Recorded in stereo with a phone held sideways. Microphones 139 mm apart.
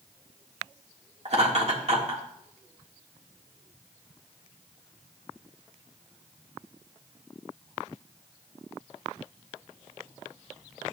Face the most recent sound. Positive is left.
turn(degrees=-50)  # may be behind; listen again after turning